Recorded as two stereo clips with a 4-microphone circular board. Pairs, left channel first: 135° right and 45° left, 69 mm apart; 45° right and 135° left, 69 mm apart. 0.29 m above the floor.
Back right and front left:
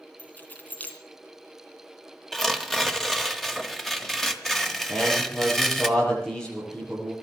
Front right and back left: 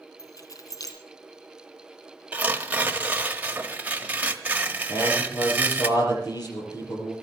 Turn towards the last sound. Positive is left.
turn(degrees=-55)